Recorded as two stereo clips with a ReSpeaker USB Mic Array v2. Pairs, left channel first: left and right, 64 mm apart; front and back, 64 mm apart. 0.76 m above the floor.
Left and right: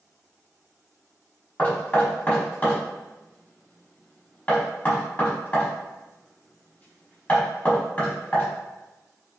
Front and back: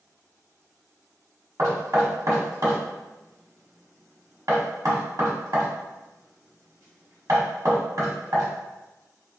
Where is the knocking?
155° left, 1.3 m.